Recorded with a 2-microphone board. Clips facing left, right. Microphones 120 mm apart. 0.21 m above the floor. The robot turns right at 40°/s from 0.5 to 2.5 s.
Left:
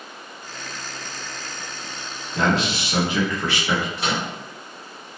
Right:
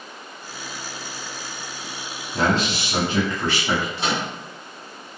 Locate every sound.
2.3 s a man speaking: 25° right (ahead or behind), 1.2 m
4.0 s a microwave: 25° right (ahead or behind), 1.8 m